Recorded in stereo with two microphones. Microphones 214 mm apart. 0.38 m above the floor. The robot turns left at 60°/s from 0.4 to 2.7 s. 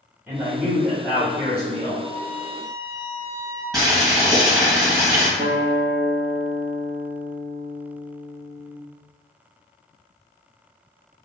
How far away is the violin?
About 0.8 m.